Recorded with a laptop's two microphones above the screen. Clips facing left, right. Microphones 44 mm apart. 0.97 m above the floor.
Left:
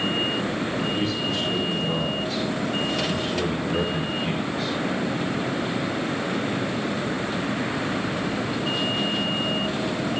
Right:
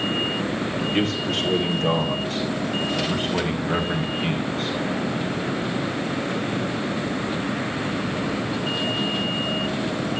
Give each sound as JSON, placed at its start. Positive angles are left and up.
{"t": 0.9, "sound": "a man speaking", "side_deg": -60, "distance_m": 3.5}